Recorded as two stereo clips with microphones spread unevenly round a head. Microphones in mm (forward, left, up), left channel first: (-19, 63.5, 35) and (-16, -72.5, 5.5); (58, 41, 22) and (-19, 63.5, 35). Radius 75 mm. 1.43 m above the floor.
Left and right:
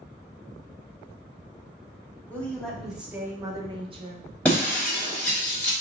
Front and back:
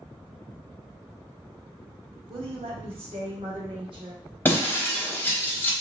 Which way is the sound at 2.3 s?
170° left.